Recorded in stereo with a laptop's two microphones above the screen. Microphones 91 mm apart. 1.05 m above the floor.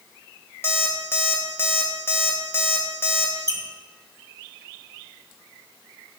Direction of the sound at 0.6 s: 25° left (ahead or behind).